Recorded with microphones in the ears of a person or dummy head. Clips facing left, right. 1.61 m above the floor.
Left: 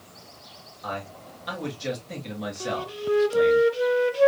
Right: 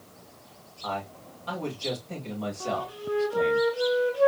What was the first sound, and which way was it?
A man speaking, 20° left (ahead or behind).